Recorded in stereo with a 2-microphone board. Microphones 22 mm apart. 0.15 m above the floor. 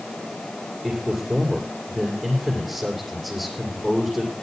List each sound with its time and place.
0.8 s a man speaking: 10° right (ahead or behind), 6 m